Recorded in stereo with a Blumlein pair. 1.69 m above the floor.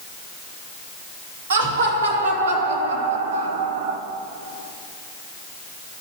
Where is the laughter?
65° right, 3 m; by 4.0 s 50° right, 1.0 m.